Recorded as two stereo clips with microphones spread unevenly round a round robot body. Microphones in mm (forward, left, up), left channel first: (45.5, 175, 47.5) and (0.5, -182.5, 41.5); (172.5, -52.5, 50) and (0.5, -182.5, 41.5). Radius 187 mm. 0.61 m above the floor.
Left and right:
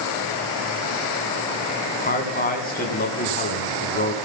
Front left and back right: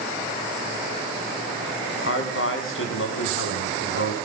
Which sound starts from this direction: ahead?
A man speaking, at 2.0 s.